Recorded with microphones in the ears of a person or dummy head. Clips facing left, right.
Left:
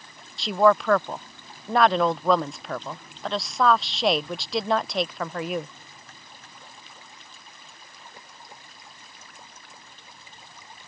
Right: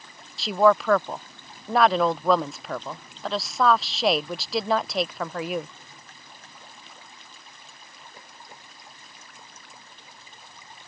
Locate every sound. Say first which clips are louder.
0.4 s a woman speaking: even; centre (ahead or behind)